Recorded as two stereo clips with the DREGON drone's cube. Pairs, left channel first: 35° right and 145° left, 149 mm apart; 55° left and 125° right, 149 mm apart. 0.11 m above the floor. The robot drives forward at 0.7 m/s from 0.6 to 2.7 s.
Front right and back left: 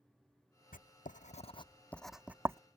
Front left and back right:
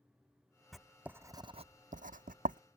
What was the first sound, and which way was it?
Writing, 35° right.